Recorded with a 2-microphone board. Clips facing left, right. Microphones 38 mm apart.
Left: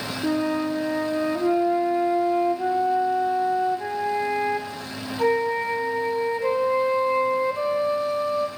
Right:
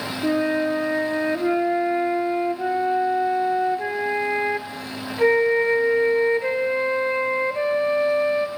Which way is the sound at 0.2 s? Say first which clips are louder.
Right 3 dB; 40° right (ahead or behind).